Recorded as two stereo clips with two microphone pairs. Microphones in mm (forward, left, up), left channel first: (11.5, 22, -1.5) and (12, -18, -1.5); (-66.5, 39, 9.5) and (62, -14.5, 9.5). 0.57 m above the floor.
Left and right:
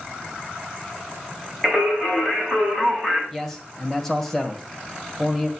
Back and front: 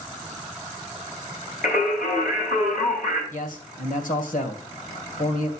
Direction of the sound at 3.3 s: 170° left.